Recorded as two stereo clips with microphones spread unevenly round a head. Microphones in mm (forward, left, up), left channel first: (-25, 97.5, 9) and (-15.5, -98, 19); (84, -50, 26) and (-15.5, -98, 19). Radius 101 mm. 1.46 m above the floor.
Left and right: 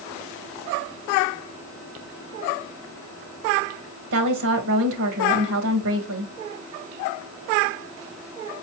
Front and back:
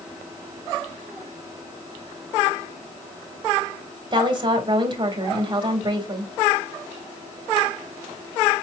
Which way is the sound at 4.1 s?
105° right.